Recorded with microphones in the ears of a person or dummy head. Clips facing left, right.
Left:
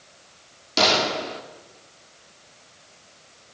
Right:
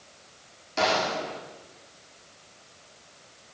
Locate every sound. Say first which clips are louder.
0.8 s a gunshot: left 3 dB; 50° left (ahead or behind), 2.5 m